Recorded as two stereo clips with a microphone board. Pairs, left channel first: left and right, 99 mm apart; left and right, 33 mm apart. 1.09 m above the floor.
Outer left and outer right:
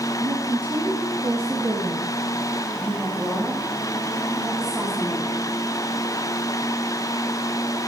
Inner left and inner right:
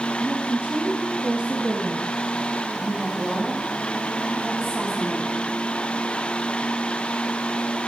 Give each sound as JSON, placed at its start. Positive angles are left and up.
{"t": 0.2, "sound": "a woman speaking", "side_deg": -50, "distance_m": 1.5}